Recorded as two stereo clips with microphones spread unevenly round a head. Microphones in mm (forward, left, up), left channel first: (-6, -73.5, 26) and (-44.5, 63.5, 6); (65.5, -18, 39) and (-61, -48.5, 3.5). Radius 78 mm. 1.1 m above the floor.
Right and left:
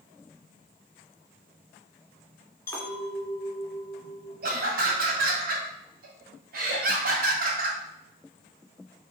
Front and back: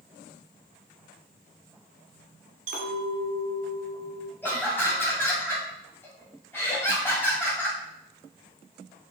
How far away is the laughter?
About 1.8 m.